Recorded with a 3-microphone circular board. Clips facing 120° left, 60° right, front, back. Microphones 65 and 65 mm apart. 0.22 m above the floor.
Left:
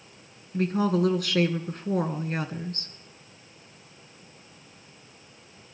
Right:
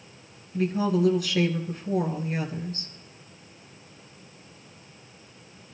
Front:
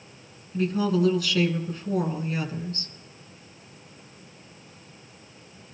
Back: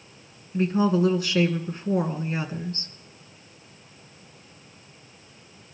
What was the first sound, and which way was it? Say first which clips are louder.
A woman speaking: even, back 2 dB; 125° left.